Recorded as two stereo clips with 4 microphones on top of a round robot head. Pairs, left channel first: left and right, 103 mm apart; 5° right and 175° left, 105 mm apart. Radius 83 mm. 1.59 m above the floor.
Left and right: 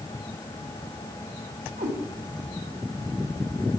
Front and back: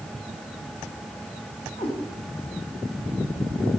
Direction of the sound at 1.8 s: 60° right.